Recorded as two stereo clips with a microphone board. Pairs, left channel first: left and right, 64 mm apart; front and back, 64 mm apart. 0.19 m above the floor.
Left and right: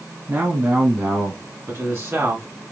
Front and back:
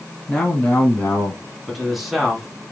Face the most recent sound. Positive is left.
turn(degrees=-95)